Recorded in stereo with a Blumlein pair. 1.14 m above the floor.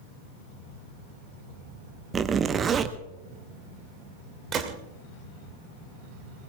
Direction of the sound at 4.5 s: 25° right.